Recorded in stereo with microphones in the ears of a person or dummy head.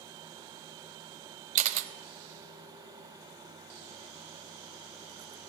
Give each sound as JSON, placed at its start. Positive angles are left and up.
{"t": 1.6, "sound": "a camera shutter", "side_deg": -35, "distance_m": 0.5}